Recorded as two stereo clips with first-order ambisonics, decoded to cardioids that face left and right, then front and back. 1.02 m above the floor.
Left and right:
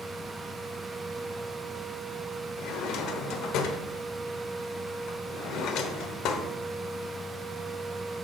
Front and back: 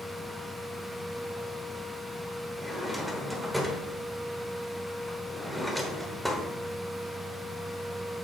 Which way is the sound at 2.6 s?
95° left.